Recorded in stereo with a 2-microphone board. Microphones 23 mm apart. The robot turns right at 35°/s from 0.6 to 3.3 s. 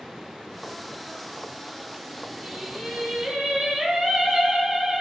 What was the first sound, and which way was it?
Singing, 145° right.